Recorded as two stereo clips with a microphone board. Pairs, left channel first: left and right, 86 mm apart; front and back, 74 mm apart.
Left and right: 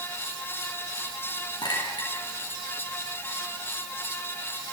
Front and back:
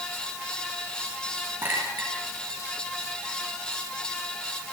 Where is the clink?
120° left, 6 m.